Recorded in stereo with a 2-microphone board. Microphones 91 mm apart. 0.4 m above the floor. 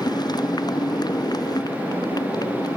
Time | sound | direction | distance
0.0 | a motorcycle | 50° left (ahead or behind) | ?